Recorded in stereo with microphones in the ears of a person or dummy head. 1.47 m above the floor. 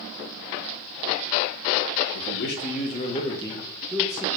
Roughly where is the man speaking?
Left.